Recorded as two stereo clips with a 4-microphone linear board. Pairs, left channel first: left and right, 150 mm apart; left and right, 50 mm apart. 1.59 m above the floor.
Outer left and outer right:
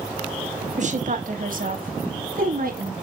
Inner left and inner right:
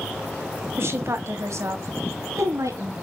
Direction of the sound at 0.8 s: 55° right (ahead or behind).